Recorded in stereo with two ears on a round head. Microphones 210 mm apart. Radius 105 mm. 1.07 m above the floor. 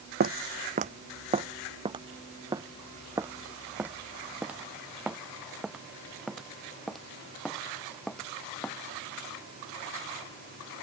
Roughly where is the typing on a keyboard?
I don't hear typing on a keyboard.